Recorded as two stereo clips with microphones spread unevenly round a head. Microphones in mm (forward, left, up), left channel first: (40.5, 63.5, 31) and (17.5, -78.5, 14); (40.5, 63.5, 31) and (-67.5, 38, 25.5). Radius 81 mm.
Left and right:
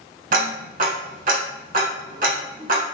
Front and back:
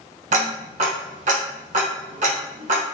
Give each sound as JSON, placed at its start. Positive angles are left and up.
{"t": 0.3, "sound": "ticking", "azimuth_deg": -140, "distance_m": 1.0}